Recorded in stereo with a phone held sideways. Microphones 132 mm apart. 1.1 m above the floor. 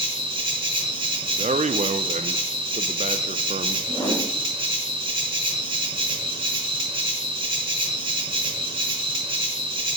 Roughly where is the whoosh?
Left.